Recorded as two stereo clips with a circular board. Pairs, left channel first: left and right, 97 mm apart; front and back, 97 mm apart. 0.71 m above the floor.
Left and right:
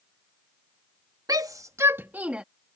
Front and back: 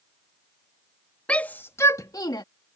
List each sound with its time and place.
1.3 s a shout: 75° right; by 2.4 s 15° right